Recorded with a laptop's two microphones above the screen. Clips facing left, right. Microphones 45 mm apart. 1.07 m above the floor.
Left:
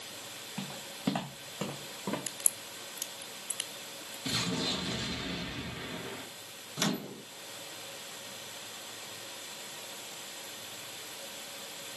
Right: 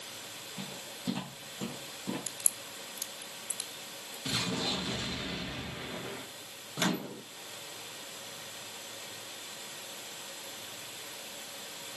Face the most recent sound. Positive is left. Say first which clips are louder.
# right 1 dB
turn(degrees=-25)  # may be behind; listen again after turning